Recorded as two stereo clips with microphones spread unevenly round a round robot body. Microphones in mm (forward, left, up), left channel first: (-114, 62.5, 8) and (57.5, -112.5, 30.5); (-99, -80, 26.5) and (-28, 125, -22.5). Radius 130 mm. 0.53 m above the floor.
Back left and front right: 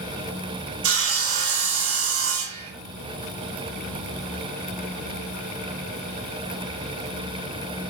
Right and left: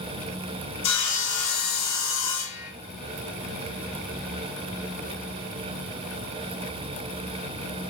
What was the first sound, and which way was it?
Sawing, 80° right.